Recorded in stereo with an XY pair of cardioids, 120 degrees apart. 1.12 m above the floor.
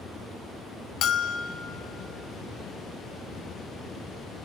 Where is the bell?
60° left, 0.5 m.